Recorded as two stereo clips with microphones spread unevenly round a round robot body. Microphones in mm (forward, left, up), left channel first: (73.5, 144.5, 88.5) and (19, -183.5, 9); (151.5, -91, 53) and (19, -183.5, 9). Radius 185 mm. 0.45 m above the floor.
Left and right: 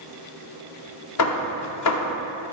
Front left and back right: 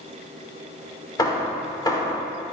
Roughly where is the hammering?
Behind left.